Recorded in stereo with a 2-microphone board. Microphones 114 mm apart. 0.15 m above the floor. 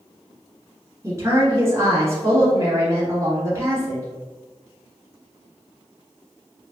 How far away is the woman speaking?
About 1.5 m.